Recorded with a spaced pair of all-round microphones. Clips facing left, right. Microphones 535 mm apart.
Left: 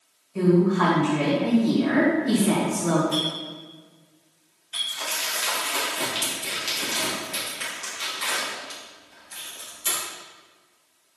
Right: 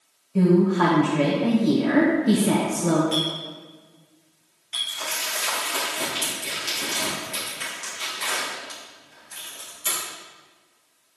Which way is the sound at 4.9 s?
70° right (ahead or behind).